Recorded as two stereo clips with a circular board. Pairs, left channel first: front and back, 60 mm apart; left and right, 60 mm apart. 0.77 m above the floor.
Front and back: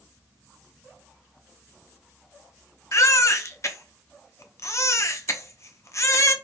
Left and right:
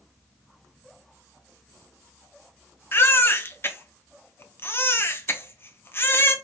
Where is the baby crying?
35° left, 0.6 m.